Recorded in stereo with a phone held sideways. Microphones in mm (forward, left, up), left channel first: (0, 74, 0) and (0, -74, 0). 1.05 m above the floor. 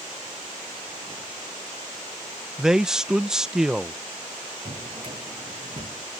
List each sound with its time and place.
2.6 s a man speaking: 5° right (ahead or behind)
4.7 s a drawer: 40° right (ahead or behind)